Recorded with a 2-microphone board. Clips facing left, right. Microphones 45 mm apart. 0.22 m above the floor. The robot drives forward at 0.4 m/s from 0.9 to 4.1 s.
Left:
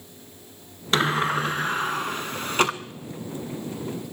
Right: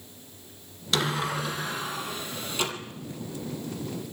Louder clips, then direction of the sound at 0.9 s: Left 5 dB; 40° left (ahead or behind).